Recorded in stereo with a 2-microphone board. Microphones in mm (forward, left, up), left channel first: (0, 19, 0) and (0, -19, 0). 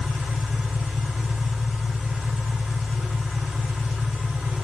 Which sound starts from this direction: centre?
An engine running, at 0.0 s.